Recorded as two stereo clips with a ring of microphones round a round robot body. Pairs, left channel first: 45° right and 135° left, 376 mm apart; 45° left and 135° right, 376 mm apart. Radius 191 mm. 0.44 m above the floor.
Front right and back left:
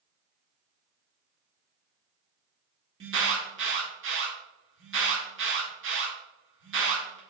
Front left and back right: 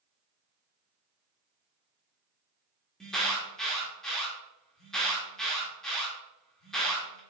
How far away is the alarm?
About 1.2 m.